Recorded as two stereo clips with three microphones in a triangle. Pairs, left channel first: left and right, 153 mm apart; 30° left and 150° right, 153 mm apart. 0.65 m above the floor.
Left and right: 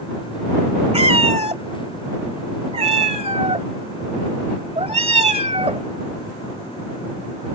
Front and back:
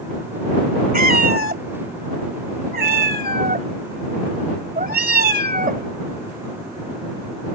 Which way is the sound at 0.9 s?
140° right.